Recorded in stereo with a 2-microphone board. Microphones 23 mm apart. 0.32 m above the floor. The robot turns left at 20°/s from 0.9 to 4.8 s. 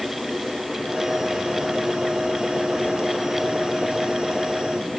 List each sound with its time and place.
Only background noise.